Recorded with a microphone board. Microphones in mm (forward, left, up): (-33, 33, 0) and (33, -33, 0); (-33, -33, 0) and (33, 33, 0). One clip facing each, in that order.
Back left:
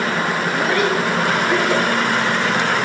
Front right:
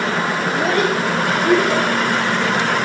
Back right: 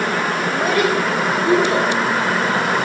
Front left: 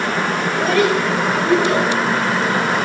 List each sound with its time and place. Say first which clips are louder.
0.5 s a child speaking: front right 1 dB, front left 2 dB; 55° right, 5 m; by 1.9 s 60° right, 7 m